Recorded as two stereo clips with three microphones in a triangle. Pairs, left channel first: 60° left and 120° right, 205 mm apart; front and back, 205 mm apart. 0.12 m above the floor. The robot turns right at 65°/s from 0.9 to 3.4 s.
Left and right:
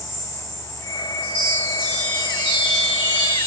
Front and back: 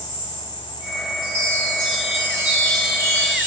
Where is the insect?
30° right, 1.6 m; by 3.5 s 135° left, 1.6 m.